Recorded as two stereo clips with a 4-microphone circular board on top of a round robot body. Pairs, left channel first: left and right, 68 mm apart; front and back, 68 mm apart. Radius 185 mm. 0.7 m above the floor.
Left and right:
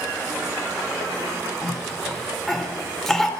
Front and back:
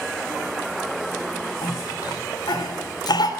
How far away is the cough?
About 3.5 m.